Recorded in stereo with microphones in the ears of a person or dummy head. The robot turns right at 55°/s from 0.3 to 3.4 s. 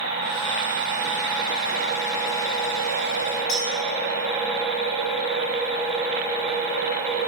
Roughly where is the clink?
Left.